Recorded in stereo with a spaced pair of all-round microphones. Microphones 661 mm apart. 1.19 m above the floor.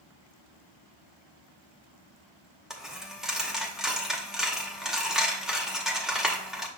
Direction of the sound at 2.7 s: Centre (ahead or behind).